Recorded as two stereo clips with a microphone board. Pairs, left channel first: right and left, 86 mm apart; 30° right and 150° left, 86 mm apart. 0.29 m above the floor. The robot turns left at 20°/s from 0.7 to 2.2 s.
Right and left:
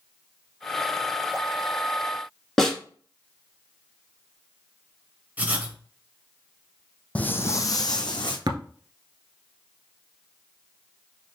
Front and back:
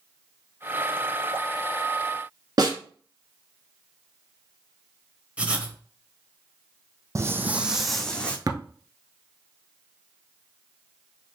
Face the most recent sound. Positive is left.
turn(degrees=110)